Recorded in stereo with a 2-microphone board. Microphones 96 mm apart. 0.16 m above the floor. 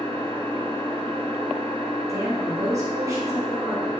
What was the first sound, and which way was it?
An engine running, 40° left (ahead or behind).